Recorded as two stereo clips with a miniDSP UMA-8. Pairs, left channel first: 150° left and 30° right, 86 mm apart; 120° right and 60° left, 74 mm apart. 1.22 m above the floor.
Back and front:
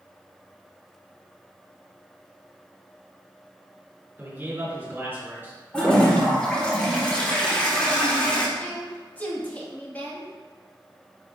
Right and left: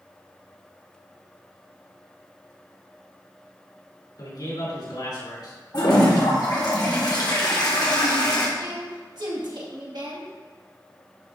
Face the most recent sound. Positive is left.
turn(degrees=80)